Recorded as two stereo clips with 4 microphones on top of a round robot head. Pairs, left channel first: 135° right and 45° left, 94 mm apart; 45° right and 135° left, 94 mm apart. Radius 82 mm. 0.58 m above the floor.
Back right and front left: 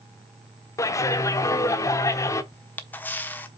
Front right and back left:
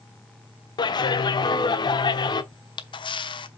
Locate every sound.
0.8 s a clap: 80° right, 1.1 m
2.5 s a camera shutter: 65° right, 1.1 m